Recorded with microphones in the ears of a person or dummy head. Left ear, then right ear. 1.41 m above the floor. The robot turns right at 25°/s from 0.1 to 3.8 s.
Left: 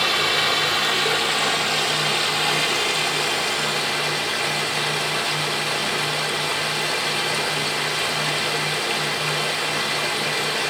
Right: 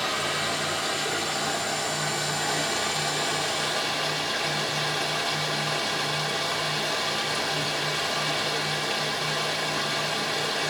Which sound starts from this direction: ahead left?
Running water, at 0.0 s.